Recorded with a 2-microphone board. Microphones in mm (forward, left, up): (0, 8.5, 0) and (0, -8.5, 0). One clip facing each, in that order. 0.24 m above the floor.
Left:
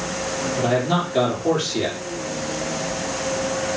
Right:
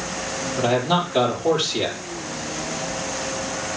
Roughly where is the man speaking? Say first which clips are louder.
Right 1 dB; right.